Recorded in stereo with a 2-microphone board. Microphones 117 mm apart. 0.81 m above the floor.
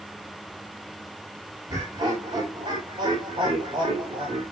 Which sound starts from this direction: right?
Laughter, at 1.7 s.